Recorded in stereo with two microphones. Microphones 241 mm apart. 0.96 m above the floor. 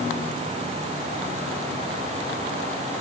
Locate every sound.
Only background noise.